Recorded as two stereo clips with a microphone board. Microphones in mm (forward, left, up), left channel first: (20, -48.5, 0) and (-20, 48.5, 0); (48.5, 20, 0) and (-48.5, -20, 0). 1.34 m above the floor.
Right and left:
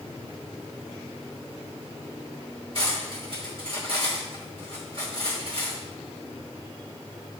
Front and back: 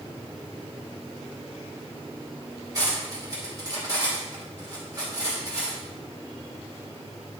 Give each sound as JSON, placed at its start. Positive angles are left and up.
{"t": 2.8, "sound": "cutlery clinking", "azimuth_deg": 145, "distance_m": 2.5}